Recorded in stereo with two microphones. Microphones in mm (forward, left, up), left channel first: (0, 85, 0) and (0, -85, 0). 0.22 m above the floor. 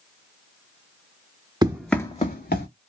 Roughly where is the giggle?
I don't hear a giggle.